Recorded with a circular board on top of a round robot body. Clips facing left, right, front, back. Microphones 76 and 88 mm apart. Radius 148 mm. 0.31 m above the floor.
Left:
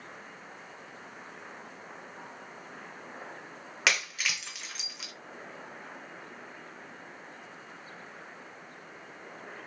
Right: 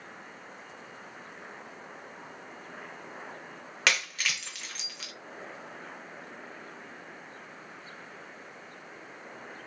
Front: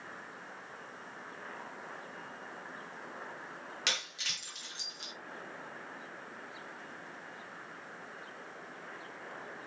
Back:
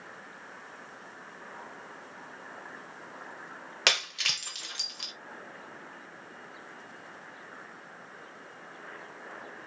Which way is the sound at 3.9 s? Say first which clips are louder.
Right 1 dB, back 10 dB; 175° left.